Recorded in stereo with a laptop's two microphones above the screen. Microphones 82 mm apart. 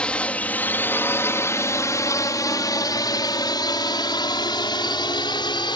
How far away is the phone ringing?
No phone ringing in this recording.